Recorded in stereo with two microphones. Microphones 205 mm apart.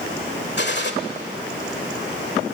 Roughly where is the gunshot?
Left.